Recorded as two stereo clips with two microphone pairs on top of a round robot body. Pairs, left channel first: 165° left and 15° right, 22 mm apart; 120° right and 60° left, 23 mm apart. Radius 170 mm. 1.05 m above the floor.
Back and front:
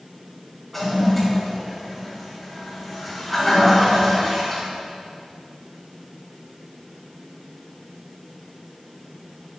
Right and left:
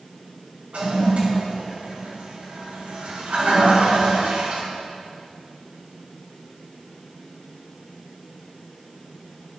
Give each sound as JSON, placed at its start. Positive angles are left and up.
{"t": 0.7, "sound": "a toilet flushing", "azimuth_deg": 80, "distance_m": 5.0}